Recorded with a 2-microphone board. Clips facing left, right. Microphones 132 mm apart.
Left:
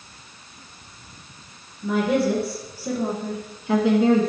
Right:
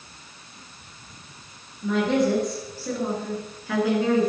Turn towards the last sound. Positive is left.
turn(degrees=30)  # may be behind; listen again after turning